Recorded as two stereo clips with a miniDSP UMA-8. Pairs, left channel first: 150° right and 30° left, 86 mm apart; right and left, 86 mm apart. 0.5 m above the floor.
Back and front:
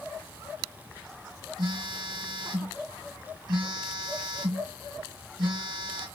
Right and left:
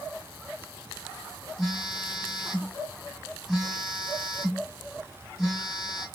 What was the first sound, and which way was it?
A phone buzzing, straight ahead.